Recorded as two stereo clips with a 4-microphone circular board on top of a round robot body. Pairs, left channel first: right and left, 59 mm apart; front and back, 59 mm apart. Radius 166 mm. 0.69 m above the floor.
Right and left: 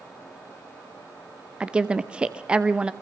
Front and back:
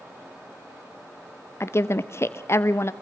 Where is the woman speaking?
25° left, 1.1 m.